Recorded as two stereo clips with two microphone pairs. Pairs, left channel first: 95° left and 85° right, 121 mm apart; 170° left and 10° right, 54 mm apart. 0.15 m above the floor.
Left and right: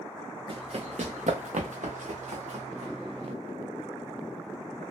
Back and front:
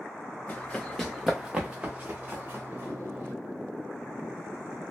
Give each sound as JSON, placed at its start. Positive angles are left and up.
{"t": 0.5, "sound": "running footsteps", "azimuth_deg": -130, "distance_m": 0.7}